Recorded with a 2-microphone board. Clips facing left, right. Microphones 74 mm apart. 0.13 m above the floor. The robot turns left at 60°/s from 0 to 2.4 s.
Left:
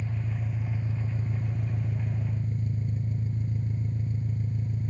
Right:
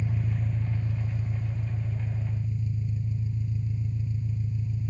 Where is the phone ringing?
I don't hear a phone ringing.